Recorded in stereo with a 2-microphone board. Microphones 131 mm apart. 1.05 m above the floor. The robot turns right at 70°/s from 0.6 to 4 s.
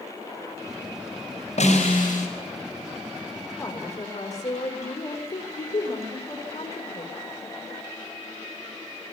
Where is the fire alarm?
I don't hear a fire alarm.